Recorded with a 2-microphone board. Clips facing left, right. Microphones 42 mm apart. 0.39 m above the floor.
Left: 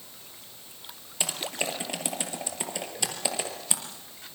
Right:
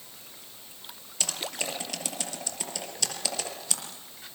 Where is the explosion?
No explosion in this recording.